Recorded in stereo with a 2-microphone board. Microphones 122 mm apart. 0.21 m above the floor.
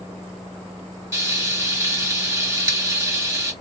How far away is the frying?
About 1.9 m.